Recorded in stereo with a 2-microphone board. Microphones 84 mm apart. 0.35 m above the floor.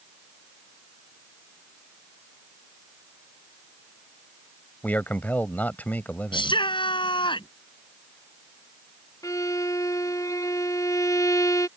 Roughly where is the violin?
Left.